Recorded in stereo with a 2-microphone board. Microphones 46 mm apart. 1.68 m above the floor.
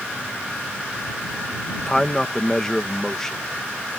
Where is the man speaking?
10° left (ahead or behind).